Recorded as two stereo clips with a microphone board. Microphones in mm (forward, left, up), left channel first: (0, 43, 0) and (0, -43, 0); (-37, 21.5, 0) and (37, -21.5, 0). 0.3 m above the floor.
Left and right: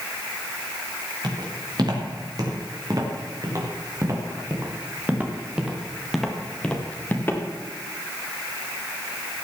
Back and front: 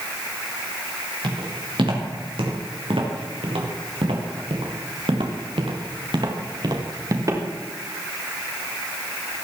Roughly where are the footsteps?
Ahead right.